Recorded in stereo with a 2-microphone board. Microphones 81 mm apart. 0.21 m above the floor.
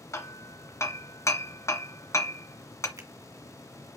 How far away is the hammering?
About 1.5 m.